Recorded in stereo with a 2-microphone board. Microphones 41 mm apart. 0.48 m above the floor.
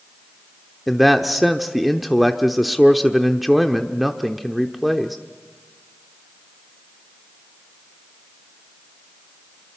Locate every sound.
0.9 s a man speaking: centre (ahead or behind), 0.9 m